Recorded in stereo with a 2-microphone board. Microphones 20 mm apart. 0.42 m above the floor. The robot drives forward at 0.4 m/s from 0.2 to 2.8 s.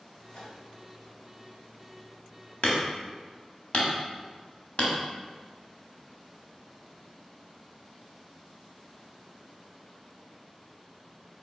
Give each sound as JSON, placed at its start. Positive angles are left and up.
{"t": 0.3, "sound": "a microwave", "side_deg": 60, "distance_m": 1.7}
{"t": 2.6, "sound": "hammering", "side_deg": 65, "distance_m": 1.1}